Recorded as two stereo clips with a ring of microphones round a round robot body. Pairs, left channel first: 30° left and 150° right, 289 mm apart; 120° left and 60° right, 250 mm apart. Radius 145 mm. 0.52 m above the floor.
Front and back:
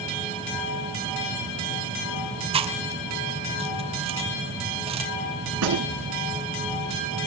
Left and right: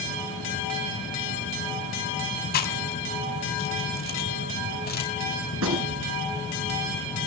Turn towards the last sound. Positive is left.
turn(degrees=-110)